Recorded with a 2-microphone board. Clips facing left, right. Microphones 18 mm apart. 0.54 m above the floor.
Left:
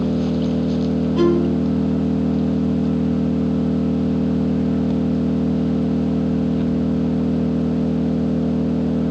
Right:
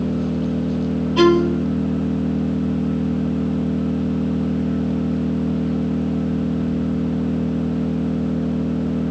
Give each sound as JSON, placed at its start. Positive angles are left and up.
{"t": 0.0, "sound": "an engine running", "side_deg": 30}
{"t": 1.2, "sound": "a violin", "side_deg": -45}